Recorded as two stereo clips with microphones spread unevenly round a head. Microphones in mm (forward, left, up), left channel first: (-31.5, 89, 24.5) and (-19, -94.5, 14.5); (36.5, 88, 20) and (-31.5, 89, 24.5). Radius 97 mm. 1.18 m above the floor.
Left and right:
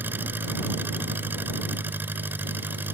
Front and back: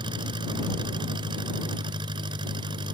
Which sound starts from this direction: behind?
An engine running, at 0.0 s.